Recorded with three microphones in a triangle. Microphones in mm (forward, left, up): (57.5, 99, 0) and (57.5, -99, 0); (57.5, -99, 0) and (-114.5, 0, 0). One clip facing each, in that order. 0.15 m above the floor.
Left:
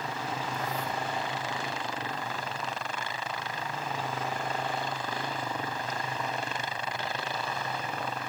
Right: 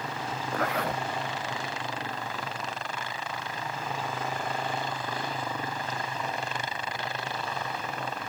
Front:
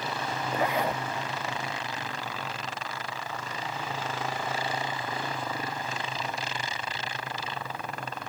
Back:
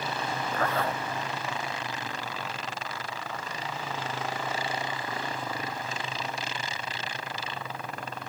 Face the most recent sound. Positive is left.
turn(degrees=-105)